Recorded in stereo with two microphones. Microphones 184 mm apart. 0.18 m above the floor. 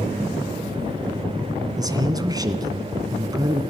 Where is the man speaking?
20° right (ahead or behind), 1.9 m.